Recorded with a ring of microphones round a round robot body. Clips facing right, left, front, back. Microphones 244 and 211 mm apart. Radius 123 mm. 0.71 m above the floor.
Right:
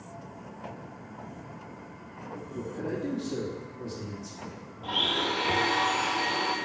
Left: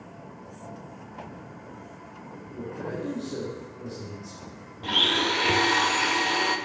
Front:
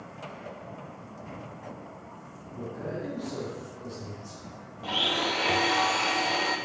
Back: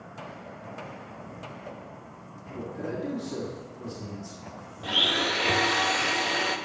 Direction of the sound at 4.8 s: 115° left.